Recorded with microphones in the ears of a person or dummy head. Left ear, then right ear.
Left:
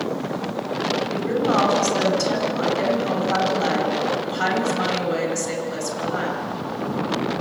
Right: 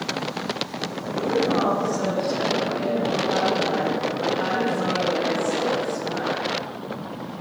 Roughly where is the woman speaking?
Left.